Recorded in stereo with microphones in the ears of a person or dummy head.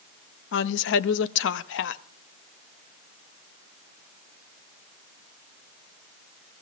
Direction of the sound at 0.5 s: 60° left (ahead or behind).